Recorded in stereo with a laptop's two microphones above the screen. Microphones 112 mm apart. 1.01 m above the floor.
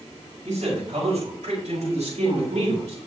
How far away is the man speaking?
About 6 m.